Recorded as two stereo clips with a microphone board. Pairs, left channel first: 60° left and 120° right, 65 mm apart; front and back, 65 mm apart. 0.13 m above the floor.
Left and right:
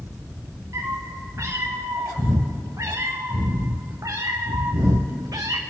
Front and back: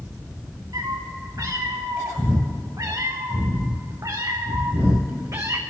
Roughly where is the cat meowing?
Behind.